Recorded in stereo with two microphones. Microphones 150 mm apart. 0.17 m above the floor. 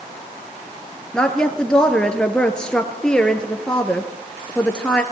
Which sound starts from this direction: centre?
A woman speaking, at 1.1 s.